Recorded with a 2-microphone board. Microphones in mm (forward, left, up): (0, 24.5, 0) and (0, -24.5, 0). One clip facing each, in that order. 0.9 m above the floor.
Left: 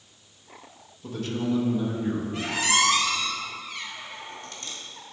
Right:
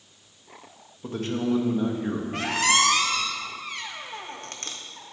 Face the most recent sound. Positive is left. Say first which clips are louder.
# right 4 dB
turn(degrees=-65)  # may be behind; listen again after turning